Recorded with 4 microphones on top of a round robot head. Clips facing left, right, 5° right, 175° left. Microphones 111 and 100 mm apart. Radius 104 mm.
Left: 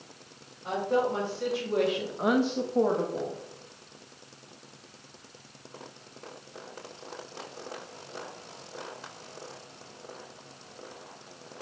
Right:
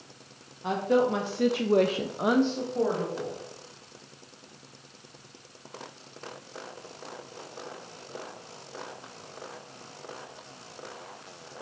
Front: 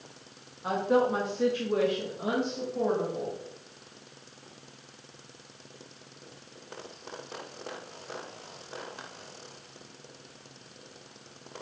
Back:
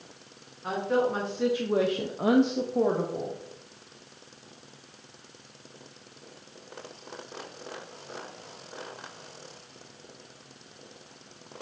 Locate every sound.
0.6 s a woman speaking: 80° right, 1.5 m; by 3.4 s 145° left, 1.5 m